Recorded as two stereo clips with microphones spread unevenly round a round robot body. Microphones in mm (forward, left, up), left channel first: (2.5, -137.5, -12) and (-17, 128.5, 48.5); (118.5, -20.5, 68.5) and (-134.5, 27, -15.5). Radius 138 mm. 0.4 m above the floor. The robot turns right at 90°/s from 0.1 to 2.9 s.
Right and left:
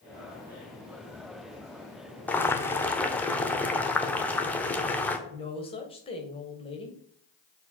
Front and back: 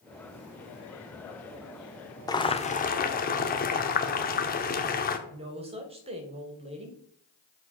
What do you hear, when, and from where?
2.3 s boiling: 115° right, 1.0 m; by 5.2 s 60° right, 1.0 m
5.3 s a woman speaking: 140° right, 2 m